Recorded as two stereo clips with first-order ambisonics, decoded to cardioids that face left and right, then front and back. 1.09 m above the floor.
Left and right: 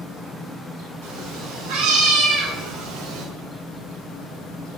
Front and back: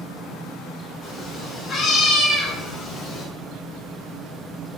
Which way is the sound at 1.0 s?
70° right.